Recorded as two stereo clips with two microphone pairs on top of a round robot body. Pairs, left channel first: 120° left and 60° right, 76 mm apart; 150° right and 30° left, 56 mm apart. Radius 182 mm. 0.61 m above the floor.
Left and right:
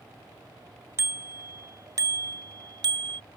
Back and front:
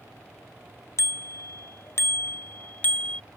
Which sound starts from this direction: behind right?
A bicycle bell, at 1.0 s.